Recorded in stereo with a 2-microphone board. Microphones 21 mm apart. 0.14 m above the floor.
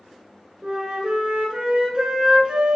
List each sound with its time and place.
0.6 s a flute: 45° right (ahead or behind), 0.8 m